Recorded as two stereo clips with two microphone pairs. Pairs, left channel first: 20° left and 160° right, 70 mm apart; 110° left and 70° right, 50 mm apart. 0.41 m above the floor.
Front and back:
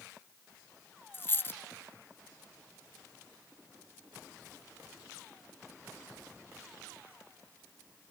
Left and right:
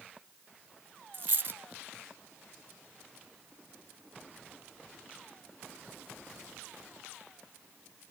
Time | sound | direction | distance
1.1 | a dropped coin | 35° right | 0.7 m